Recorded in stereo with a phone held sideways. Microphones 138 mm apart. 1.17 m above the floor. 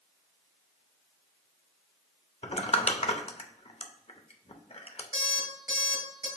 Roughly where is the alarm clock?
Right.